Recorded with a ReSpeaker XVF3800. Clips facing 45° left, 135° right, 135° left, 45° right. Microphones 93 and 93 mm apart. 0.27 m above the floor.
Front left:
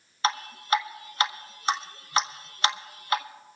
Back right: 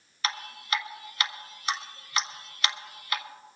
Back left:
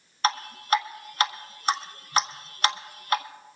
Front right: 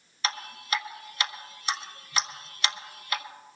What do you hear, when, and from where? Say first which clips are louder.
0.2 s dripping: front left 6 dB, back left 7 dB; 100° left, 0.9 m